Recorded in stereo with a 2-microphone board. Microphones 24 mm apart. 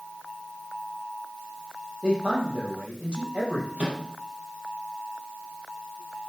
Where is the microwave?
70° right (ahead or behind), 4 m.